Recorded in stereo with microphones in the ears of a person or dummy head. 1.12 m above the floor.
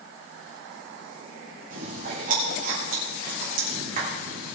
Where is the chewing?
45° right (ahead or behind), 3.5 m.